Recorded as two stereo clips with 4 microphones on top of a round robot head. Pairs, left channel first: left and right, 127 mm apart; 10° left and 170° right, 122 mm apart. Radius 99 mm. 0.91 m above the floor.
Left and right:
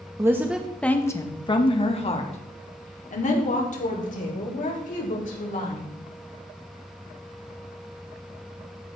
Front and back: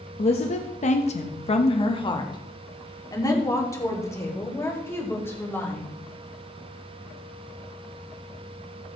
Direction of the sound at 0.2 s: 25° right.